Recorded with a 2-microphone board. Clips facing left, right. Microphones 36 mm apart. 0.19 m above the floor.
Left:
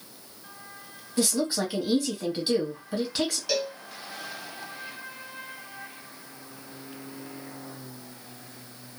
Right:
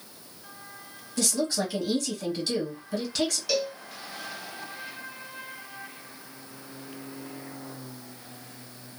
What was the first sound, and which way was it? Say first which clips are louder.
A woman speaking: left 1 dB; 20° left (ahead or behind).